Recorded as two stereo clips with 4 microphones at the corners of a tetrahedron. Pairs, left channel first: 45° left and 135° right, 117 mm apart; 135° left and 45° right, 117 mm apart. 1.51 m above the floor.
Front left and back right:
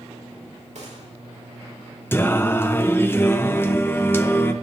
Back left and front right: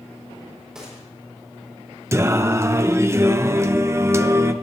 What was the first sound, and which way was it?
A gunshot, 130° right.